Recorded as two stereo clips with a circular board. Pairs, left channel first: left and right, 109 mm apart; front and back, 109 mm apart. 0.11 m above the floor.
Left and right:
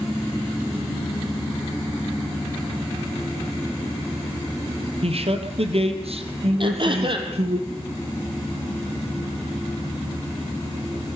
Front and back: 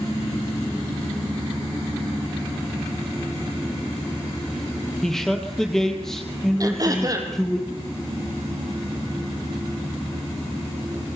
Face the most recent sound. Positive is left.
turn(degrees=-125)